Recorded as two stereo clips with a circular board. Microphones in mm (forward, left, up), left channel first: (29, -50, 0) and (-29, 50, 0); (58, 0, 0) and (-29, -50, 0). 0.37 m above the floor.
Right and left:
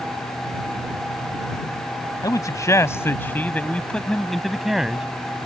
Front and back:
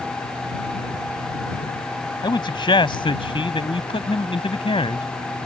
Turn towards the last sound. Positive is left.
turn(degrees=40)